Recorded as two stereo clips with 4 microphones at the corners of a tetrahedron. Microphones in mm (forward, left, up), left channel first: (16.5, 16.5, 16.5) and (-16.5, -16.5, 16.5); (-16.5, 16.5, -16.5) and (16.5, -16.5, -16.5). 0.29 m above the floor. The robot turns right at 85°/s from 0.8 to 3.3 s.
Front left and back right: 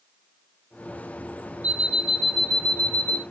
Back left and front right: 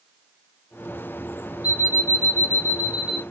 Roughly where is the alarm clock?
Right.